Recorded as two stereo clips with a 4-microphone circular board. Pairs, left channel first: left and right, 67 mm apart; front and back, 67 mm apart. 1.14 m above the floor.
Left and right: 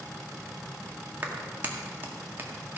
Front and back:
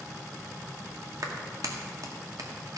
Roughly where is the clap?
Behind right.